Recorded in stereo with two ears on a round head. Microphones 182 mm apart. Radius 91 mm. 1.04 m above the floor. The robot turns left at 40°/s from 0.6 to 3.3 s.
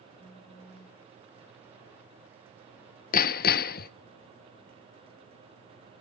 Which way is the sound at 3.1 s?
40° left (ahead or behind).